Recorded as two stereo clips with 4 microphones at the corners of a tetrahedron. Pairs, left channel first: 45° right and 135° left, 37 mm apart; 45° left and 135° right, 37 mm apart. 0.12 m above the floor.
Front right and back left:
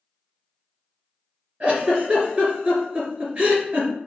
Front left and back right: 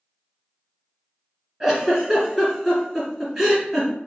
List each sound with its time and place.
1.6 s a giggle: 150° left, 1.8 m